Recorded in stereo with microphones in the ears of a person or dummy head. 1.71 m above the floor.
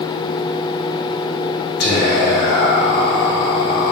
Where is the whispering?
55° left (ahead or behind), 1.1 m.